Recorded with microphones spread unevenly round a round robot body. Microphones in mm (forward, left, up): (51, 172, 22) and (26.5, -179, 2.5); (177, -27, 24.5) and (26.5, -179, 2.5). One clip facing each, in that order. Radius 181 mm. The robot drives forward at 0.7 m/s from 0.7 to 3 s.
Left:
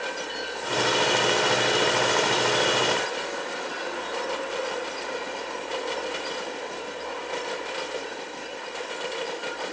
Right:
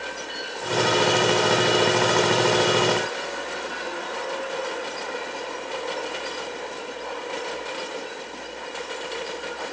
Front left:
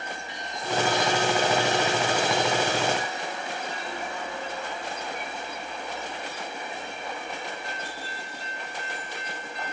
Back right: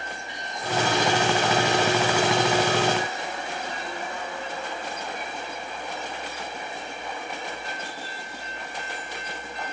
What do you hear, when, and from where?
Only background noise.